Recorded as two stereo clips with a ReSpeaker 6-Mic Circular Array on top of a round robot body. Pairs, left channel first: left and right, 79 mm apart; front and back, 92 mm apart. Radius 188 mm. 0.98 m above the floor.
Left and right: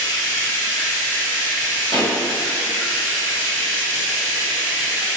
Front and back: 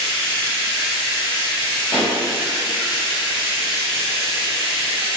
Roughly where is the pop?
Right.